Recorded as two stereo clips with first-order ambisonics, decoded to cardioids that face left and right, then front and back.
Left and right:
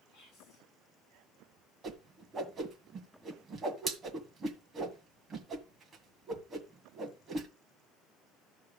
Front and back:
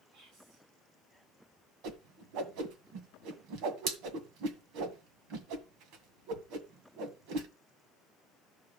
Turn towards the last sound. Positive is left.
turn(degrees=-160)